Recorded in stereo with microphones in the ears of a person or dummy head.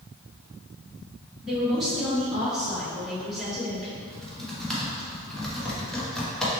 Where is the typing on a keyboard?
Centre (ahead or behind), 0.8 m.